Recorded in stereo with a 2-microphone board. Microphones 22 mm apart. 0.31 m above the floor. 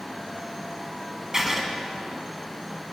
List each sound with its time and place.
1.3 s writing: 15° right (ahead or behind), 3 m